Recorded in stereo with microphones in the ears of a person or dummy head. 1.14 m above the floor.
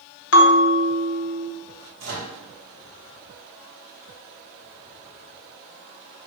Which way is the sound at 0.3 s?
70° left (ahead or behind).